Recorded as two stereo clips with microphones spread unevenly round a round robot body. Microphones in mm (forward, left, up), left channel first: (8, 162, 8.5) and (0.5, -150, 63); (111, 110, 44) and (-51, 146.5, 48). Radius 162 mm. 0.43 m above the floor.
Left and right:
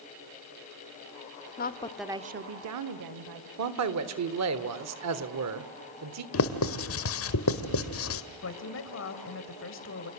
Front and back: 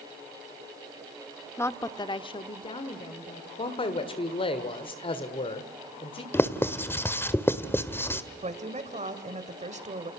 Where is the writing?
60° left, 1.6 m.